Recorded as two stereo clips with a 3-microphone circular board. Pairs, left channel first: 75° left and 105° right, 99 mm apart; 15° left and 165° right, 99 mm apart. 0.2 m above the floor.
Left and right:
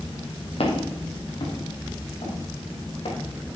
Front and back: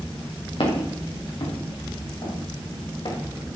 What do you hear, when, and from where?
0.6 s footsteps: 50° left, 4.5 m